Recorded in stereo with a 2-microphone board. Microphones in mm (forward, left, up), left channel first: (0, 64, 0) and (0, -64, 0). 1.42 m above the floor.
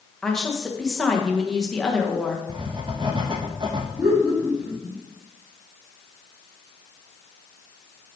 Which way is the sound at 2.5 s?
40° right (ahead or behind).